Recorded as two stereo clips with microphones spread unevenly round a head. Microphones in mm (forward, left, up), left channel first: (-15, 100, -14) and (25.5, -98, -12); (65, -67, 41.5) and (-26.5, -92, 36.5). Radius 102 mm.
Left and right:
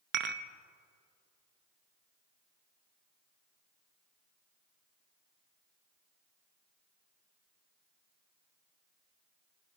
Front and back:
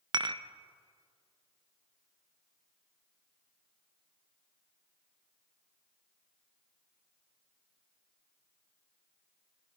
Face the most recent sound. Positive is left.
turn(degrees=-120)